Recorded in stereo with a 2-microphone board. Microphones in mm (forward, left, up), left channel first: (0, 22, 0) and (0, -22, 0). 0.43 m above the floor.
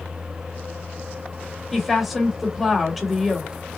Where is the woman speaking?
Centre (ahead or behind), 1.4 m.